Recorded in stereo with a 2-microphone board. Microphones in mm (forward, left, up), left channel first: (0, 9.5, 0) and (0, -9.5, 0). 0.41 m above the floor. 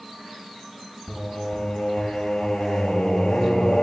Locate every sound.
1.1 s singing: 70° left (ahead or behind), 5.5 m